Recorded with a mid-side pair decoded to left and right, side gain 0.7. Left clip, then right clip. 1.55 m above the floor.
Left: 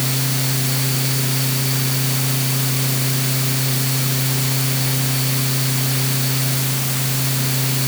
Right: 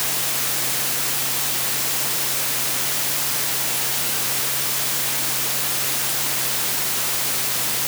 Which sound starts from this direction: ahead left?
A fan, at 0.0 s.